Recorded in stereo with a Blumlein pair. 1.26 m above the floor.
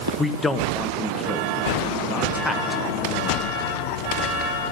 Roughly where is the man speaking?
Ahead.